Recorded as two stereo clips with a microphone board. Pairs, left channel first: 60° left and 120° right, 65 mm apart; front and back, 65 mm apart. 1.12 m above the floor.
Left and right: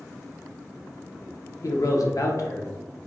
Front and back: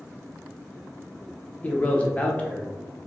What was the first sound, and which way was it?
A man speaking, 65° left.